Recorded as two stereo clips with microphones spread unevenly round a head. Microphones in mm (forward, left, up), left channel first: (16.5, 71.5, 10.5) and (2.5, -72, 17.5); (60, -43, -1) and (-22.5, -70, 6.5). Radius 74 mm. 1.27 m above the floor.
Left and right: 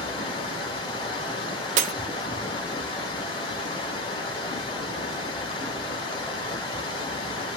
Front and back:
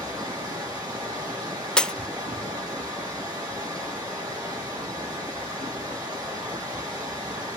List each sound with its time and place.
0.0 s running water: 140° left, 1.5 m
1.8 s breaking glass: 65° right, 0.6 m